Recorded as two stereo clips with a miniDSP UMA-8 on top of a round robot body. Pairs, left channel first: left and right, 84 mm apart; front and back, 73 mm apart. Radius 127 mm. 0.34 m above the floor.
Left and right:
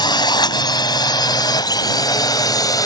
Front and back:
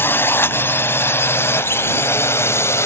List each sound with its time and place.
0.0 s a drone: 60° left; by 2.9 s 50° left